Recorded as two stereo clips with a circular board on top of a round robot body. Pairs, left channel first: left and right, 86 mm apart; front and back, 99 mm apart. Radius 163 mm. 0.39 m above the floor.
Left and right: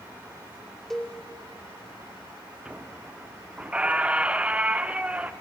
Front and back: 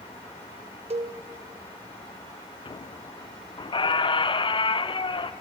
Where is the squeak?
15° right, 0.7 m.